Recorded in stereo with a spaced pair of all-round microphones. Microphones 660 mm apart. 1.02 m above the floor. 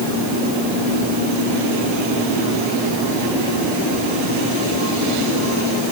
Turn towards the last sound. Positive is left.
No sound to turn to.